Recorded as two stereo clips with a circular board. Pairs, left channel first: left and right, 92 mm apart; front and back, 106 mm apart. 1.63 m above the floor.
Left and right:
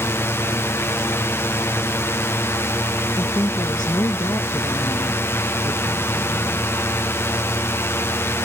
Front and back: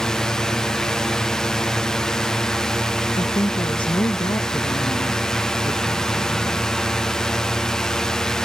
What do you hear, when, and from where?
0.0 s a drone: 80° left
3.2 s a woman speaking: 45° left